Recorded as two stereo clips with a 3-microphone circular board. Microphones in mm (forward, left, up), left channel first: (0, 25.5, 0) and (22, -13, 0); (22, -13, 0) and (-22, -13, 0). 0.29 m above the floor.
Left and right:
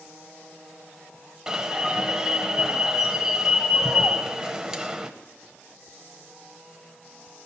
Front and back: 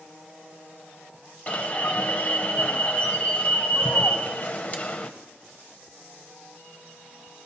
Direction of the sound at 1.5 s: 10° left.